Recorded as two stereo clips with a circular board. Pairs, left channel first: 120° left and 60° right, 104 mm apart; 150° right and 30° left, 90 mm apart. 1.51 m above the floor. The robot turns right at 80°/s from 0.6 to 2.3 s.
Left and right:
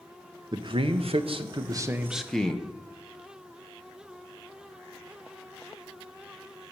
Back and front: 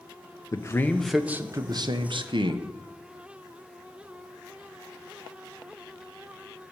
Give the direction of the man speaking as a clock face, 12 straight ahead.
3 o'clock.